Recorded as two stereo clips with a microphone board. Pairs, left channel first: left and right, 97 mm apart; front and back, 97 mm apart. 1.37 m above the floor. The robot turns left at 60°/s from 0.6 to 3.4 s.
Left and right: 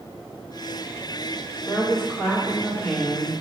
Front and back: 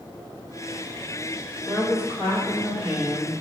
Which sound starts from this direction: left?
A woman speaking, at 1.6 s.